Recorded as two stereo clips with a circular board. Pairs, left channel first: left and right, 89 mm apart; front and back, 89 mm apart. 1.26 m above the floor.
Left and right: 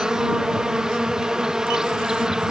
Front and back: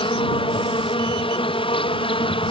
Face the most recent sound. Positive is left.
turn(degrees=-5)